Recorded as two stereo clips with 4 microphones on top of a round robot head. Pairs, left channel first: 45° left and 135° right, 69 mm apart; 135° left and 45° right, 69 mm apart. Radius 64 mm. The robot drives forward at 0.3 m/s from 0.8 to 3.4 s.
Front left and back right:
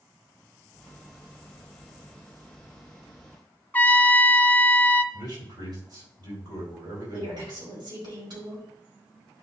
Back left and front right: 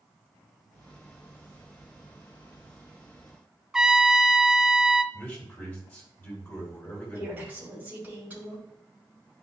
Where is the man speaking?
155° right, 5 m.